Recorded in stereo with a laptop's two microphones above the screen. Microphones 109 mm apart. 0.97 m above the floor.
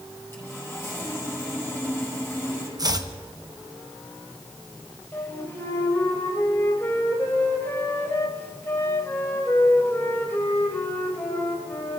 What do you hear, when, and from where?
0.3 s sawing: 20° left (ahead or behind), 4.5 m
2.8 s chopping: 35° right (ahead or behind), 0.8 m
5.1 s a flute: 20° left (ahead or behind), 4 m